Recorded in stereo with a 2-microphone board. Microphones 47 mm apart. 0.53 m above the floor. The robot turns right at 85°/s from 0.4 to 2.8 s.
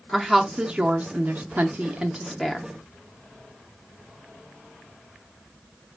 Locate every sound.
0.1 s a woman speaking: 5° right (ahead or behind), 0.7 m; by 2.7 s 10° left (ahead or behind), 0.7 m